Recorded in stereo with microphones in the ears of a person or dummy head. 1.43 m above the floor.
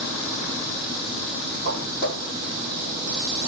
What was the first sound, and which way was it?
Footsteps, 60° left (ahead or behind).